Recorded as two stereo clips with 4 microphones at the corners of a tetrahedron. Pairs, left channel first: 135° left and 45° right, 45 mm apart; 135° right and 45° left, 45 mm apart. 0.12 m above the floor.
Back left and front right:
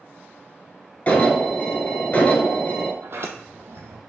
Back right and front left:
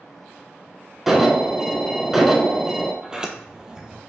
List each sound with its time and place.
1.1 s an alarm: 125° left, 0.9 m
3.0 s a sliding door: 25° right, 0.7 m